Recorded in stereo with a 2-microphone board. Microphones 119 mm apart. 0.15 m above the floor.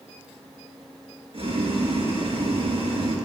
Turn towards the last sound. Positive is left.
turn(degrees=-55)  # may be behind; listen again after turning